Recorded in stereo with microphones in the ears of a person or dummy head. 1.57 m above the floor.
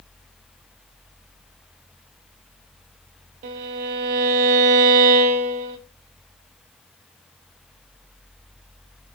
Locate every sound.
3.4 s a violin: 35° right (ahead or behind), 0.6 m